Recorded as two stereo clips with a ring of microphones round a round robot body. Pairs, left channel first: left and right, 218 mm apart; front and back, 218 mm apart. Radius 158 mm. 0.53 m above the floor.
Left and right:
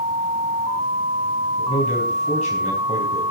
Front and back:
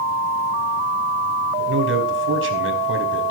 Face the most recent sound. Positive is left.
turn(degrees=155)